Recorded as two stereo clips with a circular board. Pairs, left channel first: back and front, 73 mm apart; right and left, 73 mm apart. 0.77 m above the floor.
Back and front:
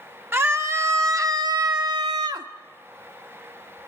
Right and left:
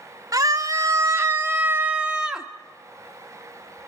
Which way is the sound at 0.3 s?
55° left.